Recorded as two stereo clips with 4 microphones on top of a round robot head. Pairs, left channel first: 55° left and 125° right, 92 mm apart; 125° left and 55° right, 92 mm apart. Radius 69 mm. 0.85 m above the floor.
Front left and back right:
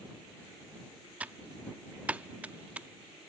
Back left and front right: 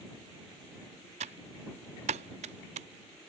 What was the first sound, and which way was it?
Typing on a keyboard, 50° right.